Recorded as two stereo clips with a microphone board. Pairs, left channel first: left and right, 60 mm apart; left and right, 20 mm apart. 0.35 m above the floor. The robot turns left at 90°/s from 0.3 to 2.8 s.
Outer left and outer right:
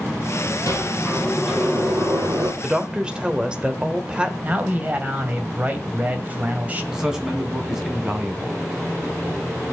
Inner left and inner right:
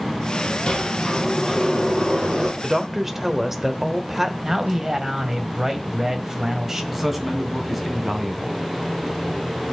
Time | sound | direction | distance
0.7 | a sliding door | 65° left | 4.5 m
2.6 | a woman speaking | 10° right (ahead or behind) | 1.3 m
4.4 | a man speaking | 25° right (ahead or behind) | 2 m
6.9 | a man speaking | 10° right (ahead or behind) | 2.5 m